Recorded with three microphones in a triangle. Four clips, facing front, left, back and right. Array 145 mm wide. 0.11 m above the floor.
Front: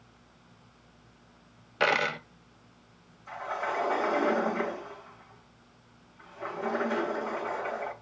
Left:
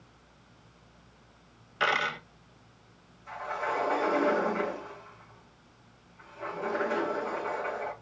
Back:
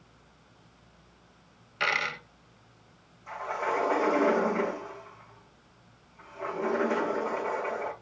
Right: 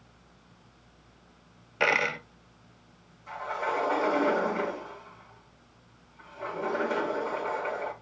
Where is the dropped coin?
40° right, 0.6 m.